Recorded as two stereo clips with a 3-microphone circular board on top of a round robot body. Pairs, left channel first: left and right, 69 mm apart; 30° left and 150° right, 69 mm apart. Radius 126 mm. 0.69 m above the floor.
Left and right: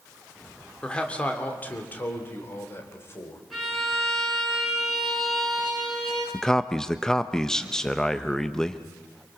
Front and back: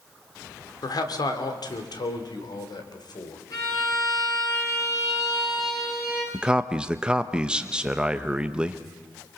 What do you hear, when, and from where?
0.8 s a man speaking: 15° left, 3 m; by 3.4 s 40° left, 4 m
3.5 s a violin: straight ahead, 7.5 m
6.3 s a man speaking: 160° left, 1.1 m